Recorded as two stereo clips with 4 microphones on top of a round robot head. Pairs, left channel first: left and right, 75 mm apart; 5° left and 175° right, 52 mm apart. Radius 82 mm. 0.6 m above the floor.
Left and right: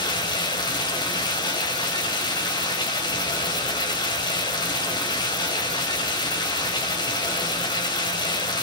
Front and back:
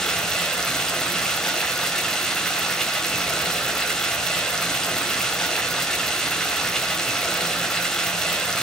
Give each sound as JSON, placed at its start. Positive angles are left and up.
{"t": 0.0, "sound": "running water", "azimuth_deg": 80, "distance_m": 3.5}